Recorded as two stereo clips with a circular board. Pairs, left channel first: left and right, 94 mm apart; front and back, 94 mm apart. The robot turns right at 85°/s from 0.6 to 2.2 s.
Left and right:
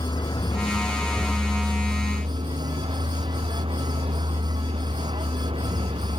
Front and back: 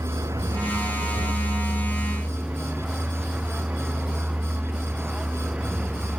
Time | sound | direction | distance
0.0 | a vehicle | 125° left | ?